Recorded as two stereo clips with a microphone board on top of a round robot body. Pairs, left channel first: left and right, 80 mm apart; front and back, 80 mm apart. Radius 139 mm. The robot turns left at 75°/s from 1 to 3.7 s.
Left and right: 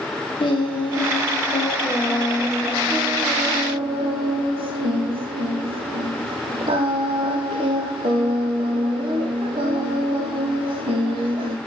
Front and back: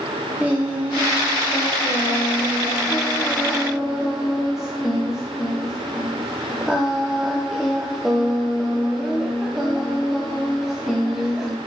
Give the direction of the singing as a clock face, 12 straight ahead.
8 o'clock.